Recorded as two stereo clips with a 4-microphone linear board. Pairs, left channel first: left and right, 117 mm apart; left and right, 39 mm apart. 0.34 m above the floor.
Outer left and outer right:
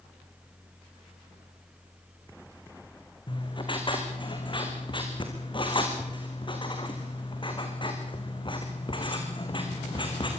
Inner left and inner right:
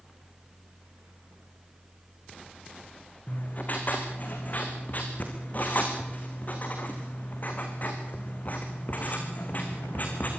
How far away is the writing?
About 4 m.